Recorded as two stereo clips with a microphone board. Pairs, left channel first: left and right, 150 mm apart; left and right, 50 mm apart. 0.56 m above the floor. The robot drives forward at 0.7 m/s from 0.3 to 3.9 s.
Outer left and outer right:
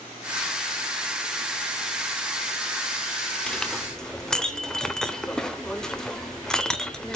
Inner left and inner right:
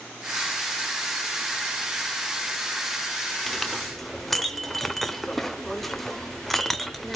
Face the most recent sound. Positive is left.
turn(degrees=5)  # may be behind; listen again after turning